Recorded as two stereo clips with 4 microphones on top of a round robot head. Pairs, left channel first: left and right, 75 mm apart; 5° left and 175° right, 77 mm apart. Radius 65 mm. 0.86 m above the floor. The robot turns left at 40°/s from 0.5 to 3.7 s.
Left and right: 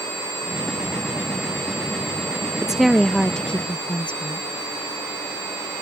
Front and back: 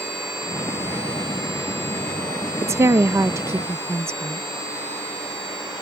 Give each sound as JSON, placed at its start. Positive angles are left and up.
{"t": 2.6, "sound": "a woman speaking", "azimuth_deg": -165}